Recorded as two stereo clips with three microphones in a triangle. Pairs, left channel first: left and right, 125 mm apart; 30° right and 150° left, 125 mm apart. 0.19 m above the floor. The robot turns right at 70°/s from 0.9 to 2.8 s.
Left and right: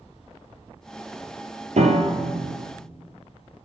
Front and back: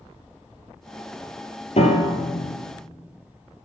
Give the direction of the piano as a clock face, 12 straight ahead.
2 o'clock.